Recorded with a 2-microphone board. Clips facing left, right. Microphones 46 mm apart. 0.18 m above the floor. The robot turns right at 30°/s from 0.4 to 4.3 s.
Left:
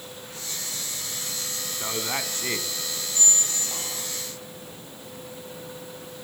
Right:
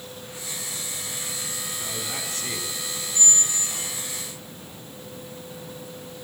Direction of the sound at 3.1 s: 25° left (ahead or behind).